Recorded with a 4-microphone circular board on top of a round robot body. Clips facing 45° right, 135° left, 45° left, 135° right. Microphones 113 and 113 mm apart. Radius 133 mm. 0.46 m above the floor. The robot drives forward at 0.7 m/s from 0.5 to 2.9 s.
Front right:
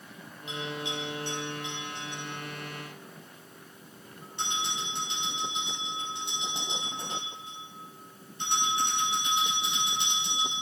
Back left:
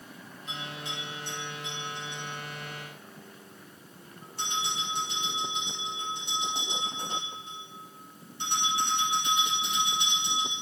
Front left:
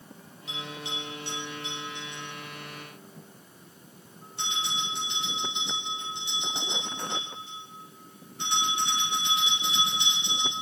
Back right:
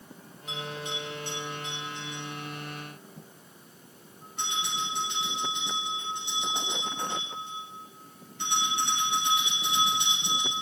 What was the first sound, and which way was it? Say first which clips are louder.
A bell: front right 5 dB, back right 2 dB; 175° right.